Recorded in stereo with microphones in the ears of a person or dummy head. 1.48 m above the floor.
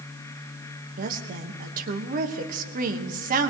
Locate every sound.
1.0 s a woman speaking: 45° right (ahead or behind), 1.5 m